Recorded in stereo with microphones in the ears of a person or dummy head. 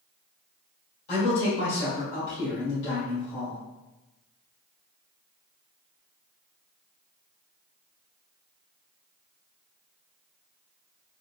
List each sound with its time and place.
1.1 s a man speaking: 60° left (ahead or behind), 1.9 m